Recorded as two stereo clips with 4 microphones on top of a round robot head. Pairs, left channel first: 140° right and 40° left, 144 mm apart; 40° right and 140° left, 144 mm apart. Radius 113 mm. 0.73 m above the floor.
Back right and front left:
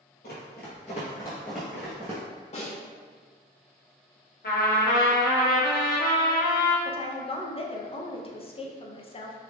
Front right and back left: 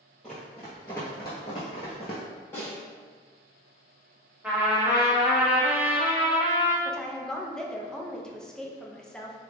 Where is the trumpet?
140° right, 1.0 m.